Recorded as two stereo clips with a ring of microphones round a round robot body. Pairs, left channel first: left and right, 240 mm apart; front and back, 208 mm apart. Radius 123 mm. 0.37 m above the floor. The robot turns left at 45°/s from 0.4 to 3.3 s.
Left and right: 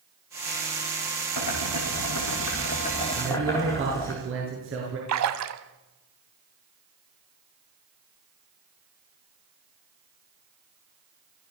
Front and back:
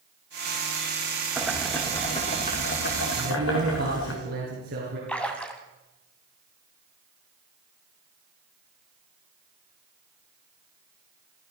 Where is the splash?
85° right, 1.7 m.